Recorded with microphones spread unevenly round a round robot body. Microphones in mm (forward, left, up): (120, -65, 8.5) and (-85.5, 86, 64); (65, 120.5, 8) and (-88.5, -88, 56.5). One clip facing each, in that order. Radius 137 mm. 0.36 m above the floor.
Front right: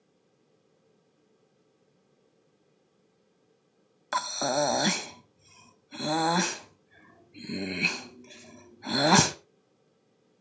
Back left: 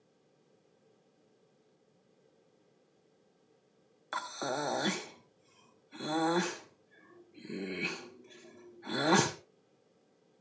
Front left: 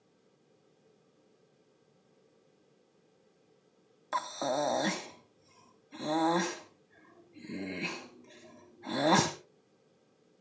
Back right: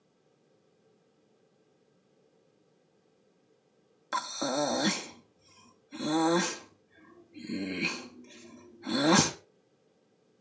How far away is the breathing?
About 1.0 m.